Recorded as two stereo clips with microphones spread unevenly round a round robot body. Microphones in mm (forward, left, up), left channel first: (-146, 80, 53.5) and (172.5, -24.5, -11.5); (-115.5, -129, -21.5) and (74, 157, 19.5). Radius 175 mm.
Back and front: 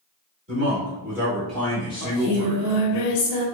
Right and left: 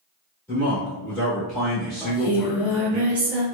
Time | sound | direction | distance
0.5 | a man speaking | 50° right | 1.3 m
2.0 | singing | 150° left | 0.8 m